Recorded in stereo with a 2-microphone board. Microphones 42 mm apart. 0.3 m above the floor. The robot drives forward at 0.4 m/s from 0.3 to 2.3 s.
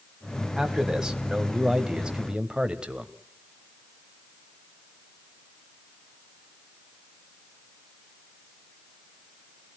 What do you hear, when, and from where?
0.6 s a man speaking: 15° right (ahead or behind), 2 m; by 3.1 s 20° right (ahead or behind), 1.7 m